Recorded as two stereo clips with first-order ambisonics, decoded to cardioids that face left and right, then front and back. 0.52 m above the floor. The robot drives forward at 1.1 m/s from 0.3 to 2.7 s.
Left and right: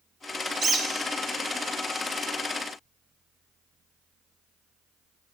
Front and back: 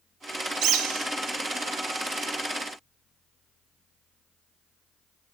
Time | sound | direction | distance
0.6 | a bird | 150° right | 0.6 m